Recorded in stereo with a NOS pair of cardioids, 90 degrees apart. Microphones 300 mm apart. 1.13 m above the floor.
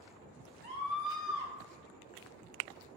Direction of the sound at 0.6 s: 45° left.